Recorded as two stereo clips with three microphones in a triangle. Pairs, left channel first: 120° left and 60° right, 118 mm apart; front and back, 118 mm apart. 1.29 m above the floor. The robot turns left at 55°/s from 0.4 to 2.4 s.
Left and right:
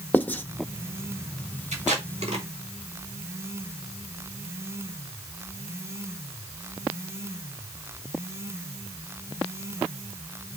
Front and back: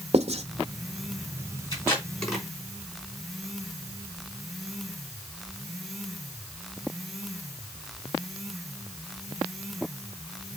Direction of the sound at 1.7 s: 55° right.